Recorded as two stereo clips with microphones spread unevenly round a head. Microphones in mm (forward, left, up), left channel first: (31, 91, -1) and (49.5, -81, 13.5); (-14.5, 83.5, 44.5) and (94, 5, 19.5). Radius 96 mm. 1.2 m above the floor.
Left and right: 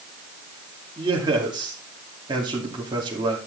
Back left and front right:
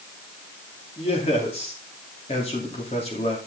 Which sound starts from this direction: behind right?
A man speaking, at 1.0 s.